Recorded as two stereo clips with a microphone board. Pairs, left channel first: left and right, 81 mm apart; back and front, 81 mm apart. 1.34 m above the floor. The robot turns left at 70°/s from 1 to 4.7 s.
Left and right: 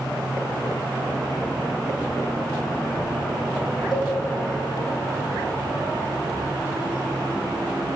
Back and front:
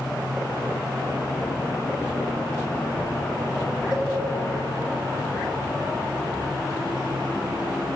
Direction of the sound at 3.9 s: 75° left.